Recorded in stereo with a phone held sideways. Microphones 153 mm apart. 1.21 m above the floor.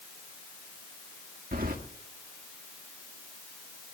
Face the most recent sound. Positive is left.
turn(degrees=-70)  # may be behind; listen again after turning